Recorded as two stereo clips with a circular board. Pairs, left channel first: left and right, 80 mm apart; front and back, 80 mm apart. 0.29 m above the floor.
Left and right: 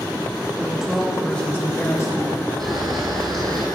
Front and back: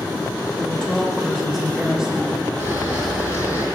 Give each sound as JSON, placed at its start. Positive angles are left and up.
{"t": 0.6, "sound": "a woman speaking", "azimuth_deg": -65, "distance_m": 0.9}
{"t": 2.6, "sound": "a camera shutter", "azimuth_deg": -110, "distance_m": 1.9}